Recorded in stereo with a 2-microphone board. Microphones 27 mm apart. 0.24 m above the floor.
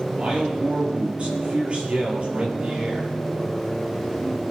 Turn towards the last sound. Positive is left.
turn(degrees=-45)  # may be behind; listen again after turning